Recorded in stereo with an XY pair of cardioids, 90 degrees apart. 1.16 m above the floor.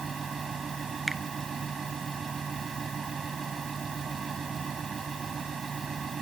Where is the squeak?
I don't hear a squeak.